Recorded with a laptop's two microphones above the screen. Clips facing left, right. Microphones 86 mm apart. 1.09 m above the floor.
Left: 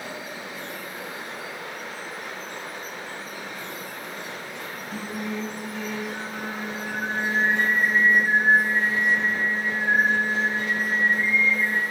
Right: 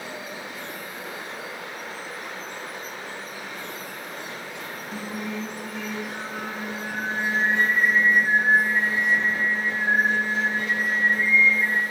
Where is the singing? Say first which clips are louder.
Left 1 dB; 25° right (ahead or behind), 2.5 m.